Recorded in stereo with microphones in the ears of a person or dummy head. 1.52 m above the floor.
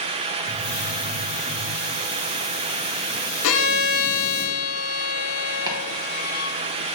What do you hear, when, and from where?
0.5 s a hiss: 40° right (ahead or behind), 3.5 m
3.4 s a violin: 80° left, 1.3 m
5.7 s chopping: 20° right (ahead or behind), 1.4 m